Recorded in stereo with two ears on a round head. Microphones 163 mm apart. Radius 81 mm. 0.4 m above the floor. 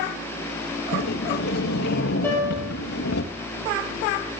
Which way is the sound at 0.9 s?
55° left (ahead or behind).